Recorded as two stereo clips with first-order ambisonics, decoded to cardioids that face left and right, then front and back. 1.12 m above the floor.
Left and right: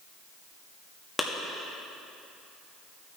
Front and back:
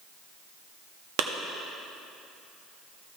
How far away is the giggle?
I don't hear a giggle.